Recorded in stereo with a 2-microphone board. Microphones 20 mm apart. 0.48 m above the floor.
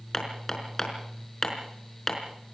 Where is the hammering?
15° left (ahead or behind), 4.5 m.